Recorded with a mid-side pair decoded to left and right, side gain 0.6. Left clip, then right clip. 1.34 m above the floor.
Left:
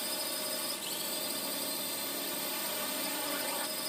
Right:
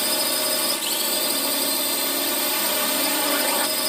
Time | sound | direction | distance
0.0 | a drone | 60° right | ?